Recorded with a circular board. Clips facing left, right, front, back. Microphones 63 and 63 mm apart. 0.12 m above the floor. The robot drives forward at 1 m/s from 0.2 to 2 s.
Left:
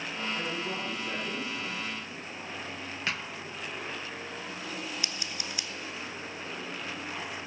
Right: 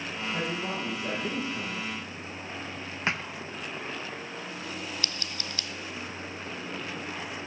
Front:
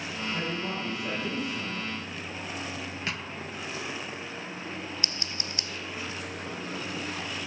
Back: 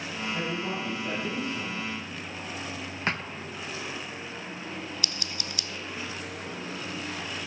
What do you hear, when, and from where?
0.3 s a man speaking: 75° right, 6.5 m; by 1.9 s 90° right, 6 m
3.1 s a thud: 145° right, 0.6 m
5.0 s scissors: 25° left, 0.7 m